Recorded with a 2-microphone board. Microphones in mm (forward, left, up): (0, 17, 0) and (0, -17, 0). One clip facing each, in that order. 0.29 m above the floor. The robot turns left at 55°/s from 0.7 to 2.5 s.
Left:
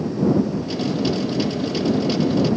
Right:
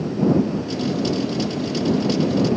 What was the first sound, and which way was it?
Only background noise.